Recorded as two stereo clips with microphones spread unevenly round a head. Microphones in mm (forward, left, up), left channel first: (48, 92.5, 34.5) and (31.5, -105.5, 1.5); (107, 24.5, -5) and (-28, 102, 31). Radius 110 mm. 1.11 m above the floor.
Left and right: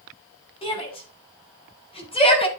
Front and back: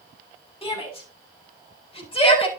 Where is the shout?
20° left, 6.5 m; by 2.5 s 25° left, 5.5 m.